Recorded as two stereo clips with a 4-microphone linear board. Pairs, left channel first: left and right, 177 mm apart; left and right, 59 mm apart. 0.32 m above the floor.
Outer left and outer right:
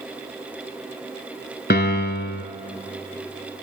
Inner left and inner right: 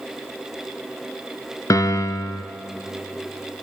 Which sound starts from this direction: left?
A piano, at 1.7 s.